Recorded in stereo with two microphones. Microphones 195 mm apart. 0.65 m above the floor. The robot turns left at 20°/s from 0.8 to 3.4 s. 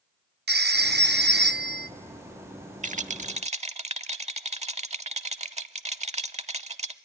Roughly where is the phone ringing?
Right.